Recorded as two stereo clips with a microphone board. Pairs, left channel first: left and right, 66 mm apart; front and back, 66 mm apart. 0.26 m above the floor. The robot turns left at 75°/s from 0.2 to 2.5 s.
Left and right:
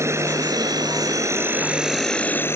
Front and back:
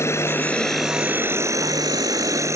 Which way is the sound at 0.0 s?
45° right.